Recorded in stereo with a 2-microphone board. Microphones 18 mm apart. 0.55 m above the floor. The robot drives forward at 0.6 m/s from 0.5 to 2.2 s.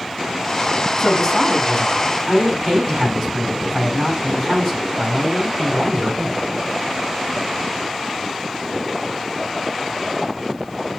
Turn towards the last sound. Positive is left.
turn(degrees=25)  # may be behind; listen again after turning